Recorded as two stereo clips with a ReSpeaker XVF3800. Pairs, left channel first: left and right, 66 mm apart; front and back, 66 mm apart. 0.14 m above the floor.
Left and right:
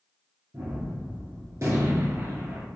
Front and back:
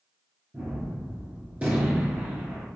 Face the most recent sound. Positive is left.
turn(degrees=-115)